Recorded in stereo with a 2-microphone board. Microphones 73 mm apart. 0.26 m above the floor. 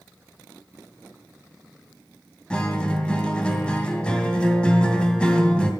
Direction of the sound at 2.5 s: 15° left (ahead or behind).